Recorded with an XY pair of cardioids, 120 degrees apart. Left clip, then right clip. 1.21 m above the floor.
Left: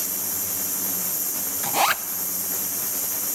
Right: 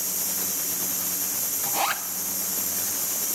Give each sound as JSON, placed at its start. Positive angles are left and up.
{"t": 1.6, "sound": "a zipper", "azimuth_deg": 30, "distance_m": 0.8}